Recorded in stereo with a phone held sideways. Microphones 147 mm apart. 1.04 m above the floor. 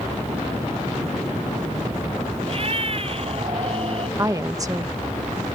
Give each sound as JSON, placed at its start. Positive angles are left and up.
{"t": 2.5, "sound": "a cat meowing", "side_deg": -45}
{"t": 4.2, "sound": "a woman speaking", "side_deg": -25}